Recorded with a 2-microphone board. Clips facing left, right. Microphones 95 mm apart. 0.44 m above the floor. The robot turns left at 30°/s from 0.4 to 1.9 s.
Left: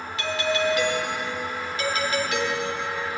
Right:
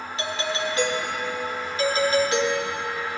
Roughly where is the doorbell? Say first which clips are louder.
Left 4 dB; ahead right.